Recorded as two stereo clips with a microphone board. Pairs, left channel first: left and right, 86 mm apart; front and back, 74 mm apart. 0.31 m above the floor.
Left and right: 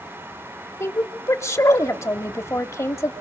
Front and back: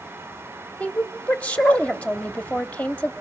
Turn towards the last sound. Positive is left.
turn(degrees=60)